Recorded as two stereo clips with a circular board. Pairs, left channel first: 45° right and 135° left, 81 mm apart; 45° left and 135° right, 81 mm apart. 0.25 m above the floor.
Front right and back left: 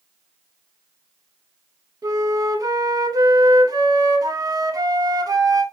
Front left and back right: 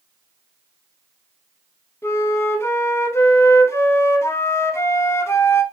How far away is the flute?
About 0.6 m.